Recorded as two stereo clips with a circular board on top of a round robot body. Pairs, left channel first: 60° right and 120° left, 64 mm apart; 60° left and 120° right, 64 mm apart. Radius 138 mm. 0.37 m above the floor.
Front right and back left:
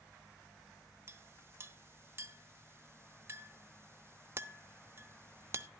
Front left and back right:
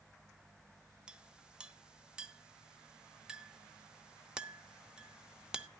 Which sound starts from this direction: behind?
A clink, at 1.1 s.